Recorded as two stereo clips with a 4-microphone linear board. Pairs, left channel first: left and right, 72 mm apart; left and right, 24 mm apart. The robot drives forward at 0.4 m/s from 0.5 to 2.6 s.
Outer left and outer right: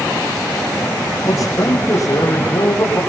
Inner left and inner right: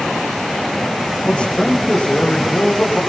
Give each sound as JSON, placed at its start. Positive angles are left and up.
{"t": 1.2, "sound": "a man speaking", "side_deg": 50, "distance_m": 6.5}